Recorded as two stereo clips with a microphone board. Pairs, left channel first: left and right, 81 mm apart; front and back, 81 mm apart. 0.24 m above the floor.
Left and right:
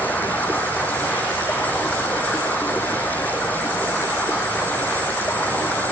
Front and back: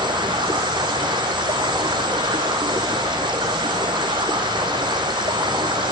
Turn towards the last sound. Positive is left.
turn(degrees=160)